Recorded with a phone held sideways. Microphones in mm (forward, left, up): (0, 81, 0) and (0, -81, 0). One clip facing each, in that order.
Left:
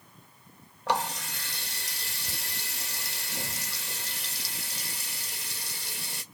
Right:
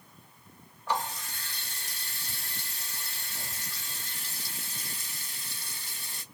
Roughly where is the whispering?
No whispering in this recording.